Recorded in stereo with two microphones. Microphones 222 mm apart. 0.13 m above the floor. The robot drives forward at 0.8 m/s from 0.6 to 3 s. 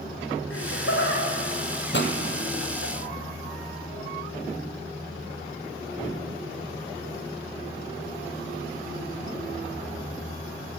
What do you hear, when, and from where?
0.5 s laughter: 70° left (ahead or behind), 9 m; by 2.9 s 80° left, 8.5 m
1.9 s a pop: 55° left (ahead or behind), 2.5 m